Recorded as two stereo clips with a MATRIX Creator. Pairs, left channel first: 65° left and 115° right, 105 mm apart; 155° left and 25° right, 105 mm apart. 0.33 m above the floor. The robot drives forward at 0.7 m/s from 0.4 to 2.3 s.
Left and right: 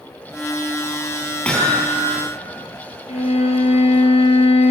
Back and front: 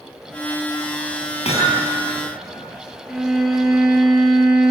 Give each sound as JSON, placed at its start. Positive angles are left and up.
{"t": 1.4, "sound": "hammering", "azimuth_deg": 145, "distance_m": 7.5}
{"t": 3.1, "sound": "a violin", "azimuth_deg": 65, "distance_m": 3.5}